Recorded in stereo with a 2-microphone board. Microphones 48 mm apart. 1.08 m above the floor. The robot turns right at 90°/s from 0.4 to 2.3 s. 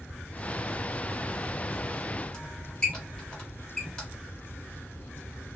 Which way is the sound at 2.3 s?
15° left (ahead or behind).